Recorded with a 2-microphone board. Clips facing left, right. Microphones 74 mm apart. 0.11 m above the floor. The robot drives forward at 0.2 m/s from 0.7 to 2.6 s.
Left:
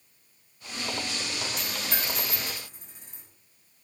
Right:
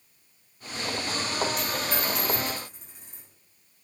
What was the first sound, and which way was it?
A dropped coin, centre (ahead or behind).